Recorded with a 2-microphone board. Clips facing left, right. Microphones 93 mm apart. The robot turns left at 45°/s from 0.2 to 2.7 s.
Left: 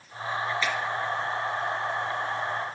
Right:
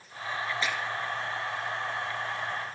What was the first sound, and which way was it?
A finger snap, 25° right (ahead or behind).